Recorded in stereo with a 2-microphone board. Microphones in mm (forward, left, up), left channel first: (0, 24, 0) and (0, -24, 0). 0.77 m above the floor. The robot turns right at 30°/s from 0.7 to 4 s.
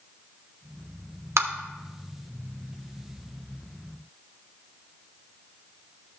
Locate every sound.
1.4 s tapping: 65° right (ahead or behind), 1.0 m; by 1.5 s 60° right (ahead or behind), 1.0 m